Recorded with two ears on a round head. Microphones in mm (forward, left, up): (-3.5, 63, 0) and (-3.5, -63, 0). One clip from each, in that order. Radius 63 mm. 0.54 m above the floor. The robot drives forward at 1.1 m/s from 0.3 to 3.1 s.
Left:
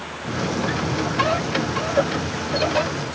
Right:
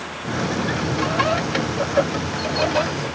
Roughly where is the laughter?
No laughter in this recording.